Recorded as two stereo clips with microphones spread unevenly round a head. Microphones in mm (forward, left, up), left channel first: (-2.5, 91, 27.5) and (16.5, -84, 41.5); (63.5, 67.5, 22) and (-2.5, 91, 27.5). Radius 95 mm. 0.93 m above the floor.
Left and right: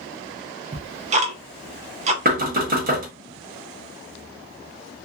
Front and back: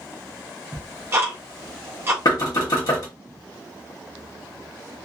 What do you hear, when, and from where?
0.7 s ticking: 135° right, 0.5 m
2.2 s knocking: 45° right, 1.0 m